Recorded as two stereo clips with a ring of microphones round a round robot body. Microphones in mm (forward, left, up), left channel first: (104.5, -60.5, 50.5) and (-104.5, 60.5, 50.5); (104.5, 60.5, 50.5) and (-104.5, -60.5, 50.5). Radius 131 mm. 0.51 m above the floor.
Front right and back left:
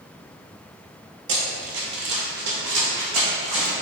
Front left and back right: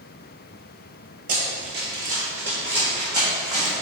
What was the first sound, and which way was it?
Running footsteps, 170° left.